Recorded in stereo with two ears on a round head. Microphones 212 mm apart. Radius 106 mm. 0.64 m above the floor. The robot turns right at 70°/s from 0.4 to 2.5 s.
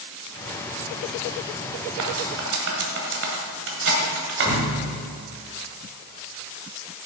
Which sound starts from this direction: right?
Cutlery clinking, at 2.0 s.